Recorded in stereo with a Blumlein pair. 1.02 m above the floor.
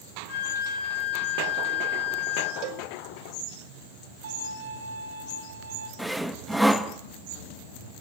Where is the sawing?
Straight ahead, 0.9 m.